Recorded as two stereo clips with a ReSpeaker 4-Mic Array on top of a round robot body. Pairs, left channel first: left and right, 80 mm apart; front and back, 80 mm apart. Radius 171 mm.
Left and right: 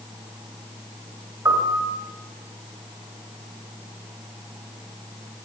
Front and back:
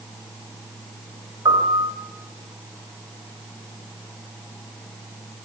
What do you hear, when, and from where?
1.4 s a piano: 145° right, 3 m